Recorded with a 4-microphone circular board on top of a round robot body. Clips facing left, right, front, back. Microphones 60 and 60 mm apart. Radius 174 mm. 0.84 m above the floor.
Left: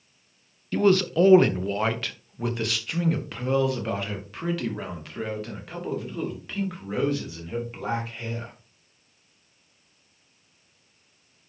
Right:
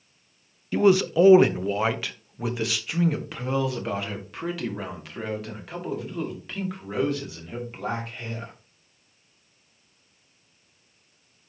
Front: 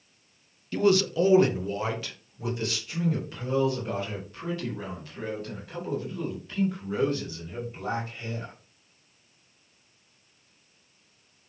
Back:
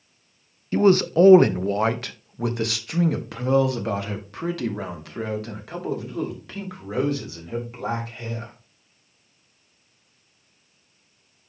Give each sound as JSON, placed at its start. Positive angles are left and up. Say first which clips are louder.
{"t": 0.7, "sound": "a man speaking", "louder": "right 1 dB, back 5 dB", "azimuth_deg": -160, "distance_m": 0.9}